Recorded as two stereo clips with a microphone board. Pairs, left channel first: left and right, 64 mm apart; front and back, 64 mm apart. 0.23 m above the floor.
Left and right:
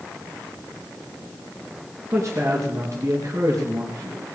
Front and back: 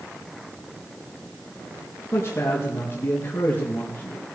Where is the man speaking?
50° right, 4 m; by 4.3 s 65° right, 4.5 m.